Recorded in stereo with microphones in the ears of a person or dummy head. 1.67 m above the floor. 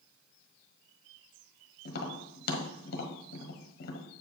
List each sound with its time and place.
1.9 s tapping: 55° left (ahead or behind), 1.3 m